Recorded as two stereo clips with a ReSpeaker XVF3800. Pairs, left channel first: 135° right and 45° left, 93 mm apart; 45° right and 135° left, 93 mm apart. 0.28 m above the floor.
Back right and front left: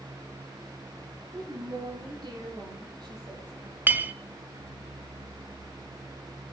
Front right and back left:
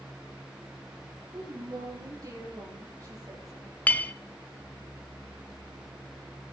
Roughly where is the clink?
Ahead.